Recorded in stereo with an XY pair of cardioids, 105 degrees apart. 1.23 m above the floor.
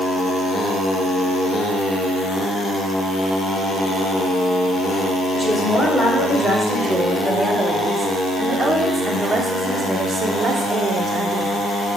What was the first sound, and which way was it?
A woman speaking, straight ahead.